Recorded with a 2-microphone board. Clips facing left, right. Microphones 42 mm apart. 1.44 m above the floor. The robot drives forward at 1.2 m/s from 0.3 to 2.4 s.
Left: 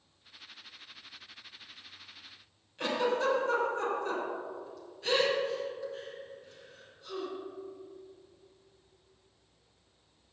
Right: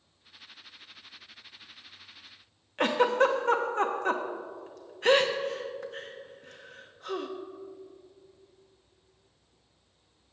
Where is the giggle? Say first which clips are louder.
Right 6 dB; 55° right (ahead or behind), 0.8 m.